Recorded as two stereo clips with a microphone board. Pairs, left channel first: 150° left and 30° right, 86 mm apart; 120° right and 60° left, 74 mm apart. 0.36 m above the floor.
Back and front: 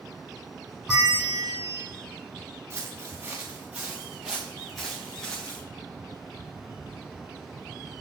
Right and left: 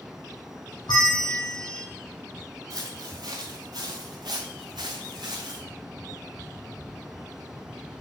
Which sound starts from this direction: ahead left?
Footsteps, at 2.7 s.